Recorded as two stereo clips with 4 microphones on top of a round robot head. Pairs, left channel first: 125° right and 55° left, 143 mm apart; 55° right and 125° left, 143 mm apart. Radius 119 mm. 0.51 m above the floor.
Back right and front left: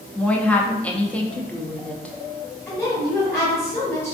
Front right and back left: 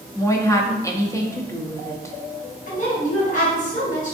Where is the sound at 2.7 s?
50° right, 1.7 m.